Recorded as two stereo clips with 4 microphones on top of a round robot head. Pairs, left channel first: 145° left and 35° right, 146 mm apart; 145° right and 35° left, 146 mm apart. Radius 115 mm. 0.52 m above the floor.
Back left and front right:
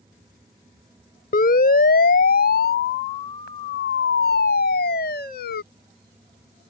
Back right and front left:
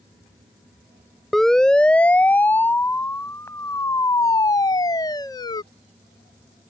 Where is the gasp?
I don't hear a gasp.